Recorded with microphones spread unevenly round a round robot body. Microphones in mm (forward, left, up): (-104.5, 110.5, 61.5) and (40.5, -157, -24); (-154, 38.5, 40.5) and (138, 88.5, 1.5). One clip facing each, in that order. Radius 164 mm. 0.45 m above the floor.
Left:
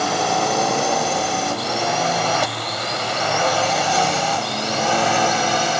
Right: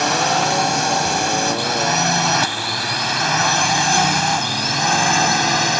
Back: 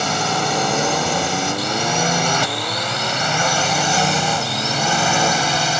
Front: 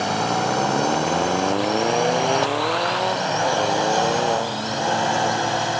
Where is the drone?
115° right; by 5.8 s 120° right.